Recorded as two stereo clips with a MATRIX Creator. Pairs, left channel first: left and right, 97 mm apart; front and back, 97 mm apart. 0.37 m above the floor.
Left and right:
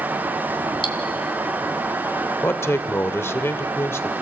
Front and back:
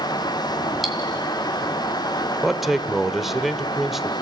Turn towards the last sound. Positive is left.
turn(degrees=95)